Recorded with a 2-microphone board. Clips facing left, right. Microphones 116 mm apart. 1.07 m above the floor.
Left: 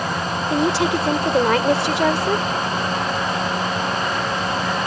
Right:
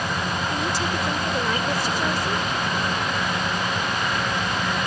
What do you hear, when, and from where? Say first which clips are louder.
0.5 s a woman speaking: left 7 dB; 85° left